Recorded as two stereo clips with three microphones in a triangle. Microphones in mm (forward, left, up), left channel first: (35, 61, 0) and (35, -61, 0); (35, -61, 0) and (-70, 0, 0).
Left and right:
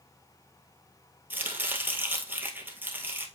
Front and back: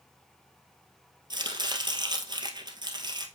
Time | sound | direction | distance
1.3 | chopping | 160° right | 1.6 m